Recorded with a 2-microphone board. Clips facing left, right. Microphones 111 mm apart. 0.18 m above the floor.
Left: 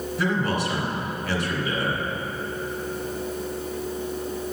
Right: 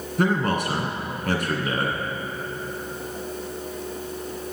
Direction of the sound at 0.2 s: 50° right (ahead or behind).